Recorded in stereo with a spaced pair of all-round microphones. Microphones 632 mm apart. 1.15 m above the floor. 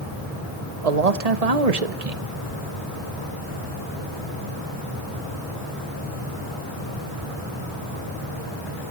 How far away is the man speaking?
About 1.1 m.